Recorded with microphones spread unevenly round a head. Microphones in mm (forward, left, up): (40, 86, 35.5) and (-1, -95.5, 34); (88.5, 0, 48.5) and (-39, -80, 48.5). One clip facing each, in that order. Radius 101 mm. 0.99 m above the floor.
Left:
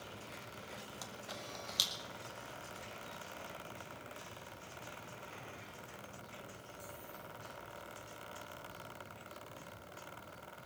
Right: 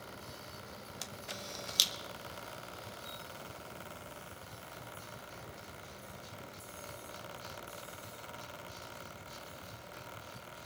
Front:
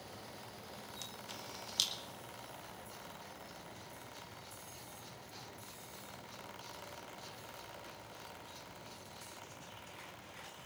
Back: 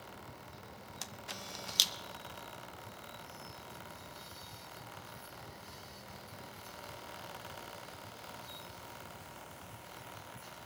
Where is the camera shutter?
160° right, 1.1 m.